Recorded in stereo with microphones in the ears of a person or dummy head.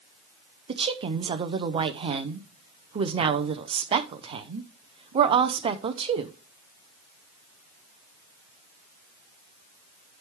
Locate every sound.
0.7 s a woman speaking: 25° right (ahead or behind), 0.6 m